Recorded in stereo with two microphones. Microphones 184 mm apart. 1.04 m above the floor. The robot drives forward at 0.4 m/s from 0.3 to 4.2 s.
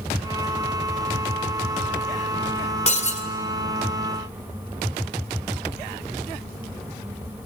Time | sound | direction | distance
2.9 | breaking glass | 35° left (ahead or behind) | 2 m